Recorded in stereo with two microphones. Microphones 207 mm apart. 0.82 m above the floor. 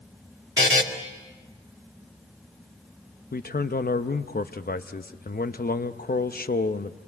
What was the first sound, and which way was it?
A buzzer, 65° right (ahead or behind).